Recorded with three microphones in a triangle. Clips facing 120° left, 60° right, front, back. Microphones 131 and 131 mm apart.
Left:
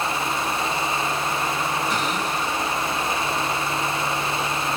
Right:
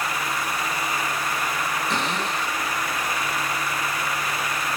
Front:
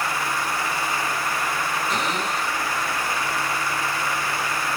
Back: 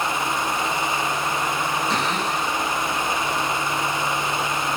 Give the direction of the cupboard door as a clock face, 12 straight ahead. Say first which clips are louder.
Left 1 dB, back 2 dB; 4 o'clock.